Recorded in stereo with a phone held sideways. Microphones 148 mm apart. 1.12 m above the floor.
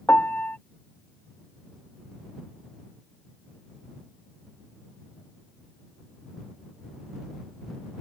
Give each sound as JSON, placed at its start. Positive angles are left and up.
{"t": 0.1, "sound": "a piano", "side_deg": 10}